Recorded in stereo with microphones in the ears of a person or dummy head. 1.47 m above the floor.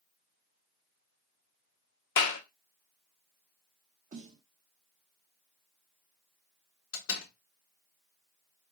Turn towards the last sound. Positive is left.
turn(degrees=70)  # may be behind; listen again after turning